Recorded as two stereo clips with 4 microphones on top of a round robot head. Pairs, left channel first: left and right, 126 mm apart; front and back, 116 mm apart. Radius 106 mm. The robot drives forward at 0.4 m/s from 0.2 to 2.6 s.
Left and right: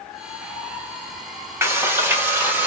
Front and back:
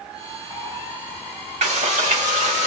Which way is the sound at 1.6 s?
160° right.